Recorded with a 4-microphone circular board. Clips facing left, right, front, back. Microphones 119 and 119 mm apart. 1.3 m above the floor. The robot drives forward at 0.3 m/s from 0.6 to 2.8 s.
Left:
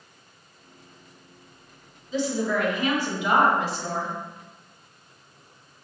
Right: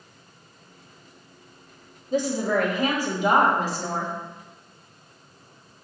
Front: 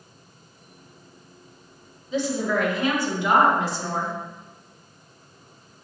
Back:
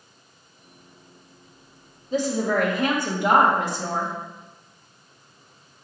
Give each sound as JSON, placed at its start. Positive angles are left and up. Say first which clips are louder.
{"t": 2.1, "sound": "a woman speaking", "louder": "right 2 dB, back 1 dB", "azimuth_deg": -130, "distance_m": 0.8}